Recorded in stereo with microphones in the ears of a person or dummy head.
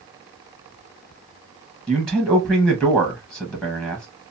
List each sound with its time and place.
1.9 s a man speaking: 5° left (ahead or behind), 0.9 m